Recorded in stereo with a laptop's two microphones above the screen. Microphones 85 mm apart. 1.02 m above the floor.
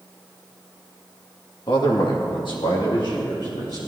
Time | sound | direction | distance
1.7 | a man speaking | 65° left (ahead or behind) | 1.8 m